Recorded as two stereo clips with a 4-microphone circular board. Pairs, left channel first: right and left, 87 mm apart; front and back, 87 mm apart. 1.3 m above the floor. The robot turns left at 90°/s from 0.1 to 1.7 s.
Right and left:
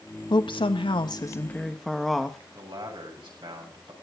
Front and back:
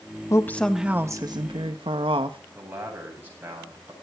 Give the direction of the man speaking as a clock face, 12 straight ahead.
8 o'clock.